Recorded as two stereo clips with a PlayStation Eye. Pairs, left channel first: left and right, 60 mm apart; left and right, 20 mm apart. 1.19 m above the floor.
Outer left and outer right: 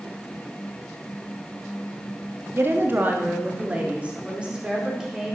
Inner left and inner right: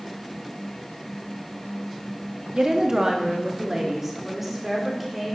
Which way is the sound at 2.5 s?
40° right (ahead or behind).